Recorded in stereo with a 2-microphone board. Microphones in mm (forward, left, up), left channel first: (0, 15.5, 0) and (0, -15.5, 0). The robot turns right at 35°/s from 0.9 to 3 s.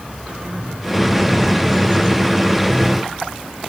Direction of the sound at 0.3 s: 35° right (ahead or behind).